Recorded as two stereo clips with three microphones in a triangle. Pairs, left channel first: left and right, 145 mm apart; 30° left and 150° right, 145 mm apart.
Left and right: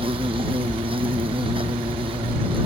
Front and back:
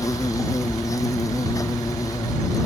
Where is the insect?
35° right.